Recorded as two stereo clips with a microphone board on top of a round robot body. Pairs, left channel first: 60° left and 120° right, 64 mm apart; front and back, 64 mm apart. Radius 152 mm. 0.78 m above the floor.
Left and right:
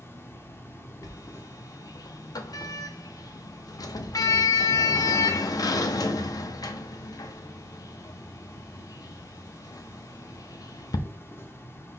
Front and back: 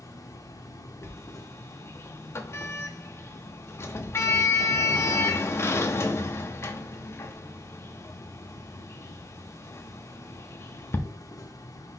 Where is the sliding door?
45° left, 0.6 m.